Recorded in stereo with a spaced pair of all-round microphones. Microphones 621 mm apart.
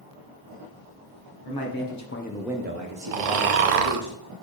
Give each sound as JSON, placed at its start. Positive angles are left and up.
{"t": 1.4, "sound": "a man speaking", "side_deg": 40, "distance_m": 1.2}
{"t": 3.1, "sound": "snoring", "side_deg": -70, "distance_m": 0.5}